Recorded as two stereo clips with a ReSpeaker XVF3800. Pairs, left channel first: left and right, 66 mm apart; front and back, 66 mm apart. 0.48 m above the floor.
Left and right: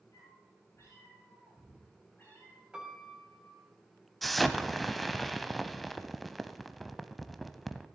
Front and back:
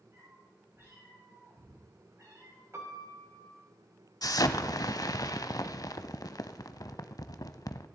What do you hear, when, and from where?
0.1 s a cat meowing: 125° left, 5.5 m; by 2.6 s 155° left, 4.5 m
2.7 s a piano: 160° right, 1.7 m
4.2 s an explosion: straight ahead, 0.6 m